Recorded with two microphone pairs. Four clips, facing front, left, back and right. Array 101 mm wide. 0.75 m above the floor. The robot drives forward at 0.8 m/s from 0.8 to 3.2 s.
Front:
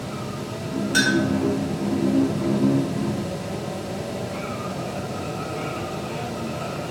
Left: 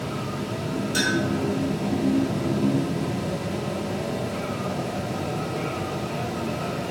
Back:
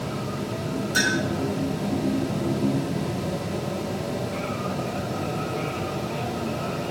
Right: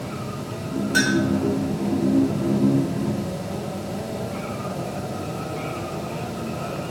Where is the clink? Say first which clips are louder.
Right 4 dB, front 4 dB; 65° right, 4.5 m.